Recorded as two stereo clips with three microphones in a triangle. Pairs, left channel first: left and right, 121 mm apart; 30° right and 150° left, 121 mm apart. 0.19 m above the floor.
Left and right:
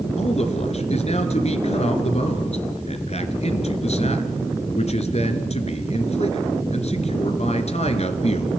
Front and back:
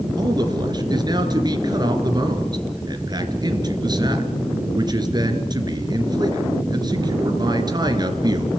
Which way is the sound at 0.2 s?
100° left.